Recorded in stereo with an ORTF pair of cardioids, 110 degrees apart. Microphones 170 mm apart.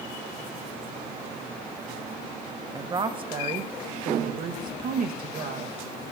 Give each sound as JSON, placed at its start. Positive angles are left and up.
{"t": 2.8, "sound": "a woman speaking", "azimuth_deg": -25, "distance_m": 1.4}